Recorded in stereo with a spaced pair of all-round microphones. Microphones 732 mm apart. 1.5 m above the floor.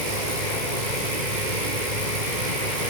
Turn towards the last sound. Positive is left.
turn(degrees=-85)